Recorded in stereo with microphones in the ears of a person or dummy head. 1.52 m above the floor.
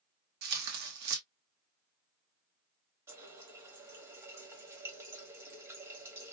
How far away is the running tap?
About 1.5 m.